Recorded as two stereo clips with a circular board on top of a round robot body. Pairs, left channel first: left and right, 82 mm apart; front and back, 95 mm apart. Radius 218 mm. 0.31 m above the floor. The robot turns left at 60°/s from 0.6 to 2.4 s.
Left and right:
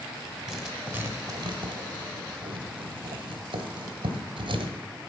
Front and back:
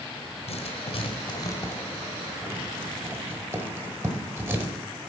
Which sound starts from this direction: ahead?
Writing, at 0.5 s.